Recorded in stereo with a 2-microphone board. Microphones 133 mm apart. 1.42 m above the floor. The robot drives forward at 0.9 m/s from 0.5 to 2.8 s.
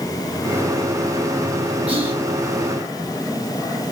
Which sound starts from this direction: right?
Whispering, at 1.9 s.